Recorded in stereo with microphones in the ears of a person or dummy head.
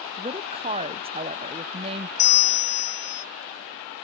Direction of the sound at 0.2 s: 35° right (ahead or behind).